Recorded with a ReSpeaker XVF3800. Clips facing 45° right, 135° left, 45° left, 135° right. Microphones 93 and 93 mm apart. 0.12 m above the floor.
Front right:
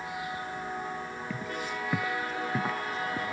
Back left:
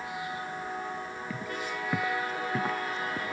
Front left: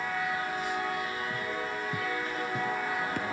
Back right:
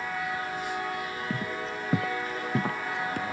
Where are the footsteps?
140° right; by 3.3 s 130° right.